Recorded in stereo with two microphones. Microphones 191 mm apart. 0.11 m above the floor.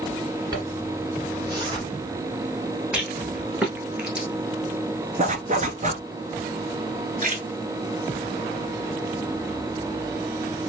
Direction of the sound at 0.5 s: 20° right (ahead or behind).